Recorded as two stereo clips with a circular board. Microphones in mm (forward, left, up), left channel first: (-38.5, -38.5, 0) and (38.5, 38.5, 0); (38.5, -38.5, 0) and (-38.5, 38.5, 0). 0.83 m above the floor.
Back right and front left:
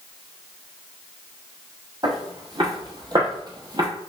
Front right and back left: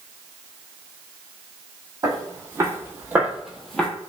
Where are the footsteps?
90° left, 1.5 m; by 3.9 s 30° left, 1.0 m.